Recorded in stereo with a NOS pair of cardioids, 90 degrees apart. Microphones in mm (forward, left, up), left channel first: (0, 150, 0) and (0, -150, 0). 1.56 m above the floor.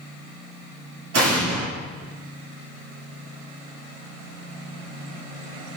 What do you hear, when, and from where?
1.1 s an explosion: 55° right, 2.5 m